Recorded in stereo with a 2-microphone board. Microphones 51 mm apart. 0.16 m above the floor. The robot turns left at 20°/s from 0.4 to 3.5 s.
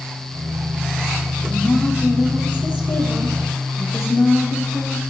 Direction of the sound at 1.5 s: 165° left.